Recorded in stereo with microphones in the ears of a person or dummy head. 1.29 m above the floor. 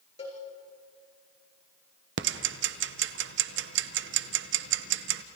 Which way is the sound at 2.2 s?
60° right (ahead or behind).